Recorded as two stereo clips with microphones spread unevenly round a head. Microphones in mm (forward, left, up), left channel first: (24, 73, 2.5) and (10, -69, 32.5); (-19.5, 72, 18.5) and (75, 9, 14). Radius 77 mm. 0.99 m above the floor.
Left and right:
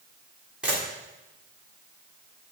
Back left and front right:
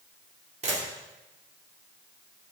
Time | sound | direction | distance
0.6 | a camera shutter | 10° right | 1.9 m